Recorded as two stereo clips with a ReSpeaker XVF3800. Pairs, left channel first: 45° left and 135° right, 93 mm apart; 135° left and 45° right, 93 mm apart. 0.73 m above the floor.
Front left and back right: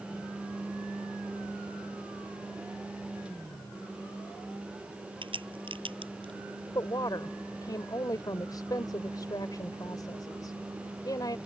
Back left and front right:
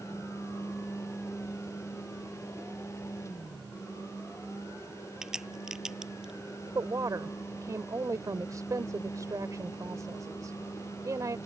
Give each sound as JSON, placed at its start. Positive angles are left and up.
{"t": 5.2, "sound": "a crack", "azimuth_deg": -125}
{"t": 6.8, "sound": "a woman speaking", "azimuth_deg": 5}